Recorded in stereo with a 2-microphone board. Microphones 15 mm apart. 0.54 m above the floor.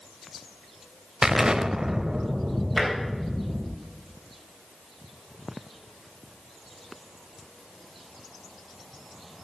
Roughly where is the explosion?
Right.